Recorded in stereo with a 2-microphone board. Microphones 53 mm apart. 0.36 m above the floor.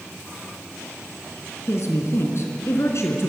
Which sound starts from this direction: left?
A woman speaking, at 1.7 s.